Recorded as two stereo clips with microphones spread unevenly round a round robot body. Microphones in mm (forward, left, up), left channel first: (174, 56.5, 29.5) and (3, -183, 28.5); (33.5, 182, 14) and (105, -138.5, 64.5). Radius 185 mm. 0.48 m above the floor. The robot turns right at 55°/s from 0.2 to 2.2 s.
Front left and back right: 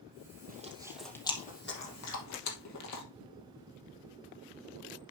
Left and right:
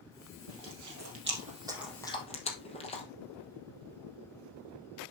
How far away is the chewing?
About 2.5 m.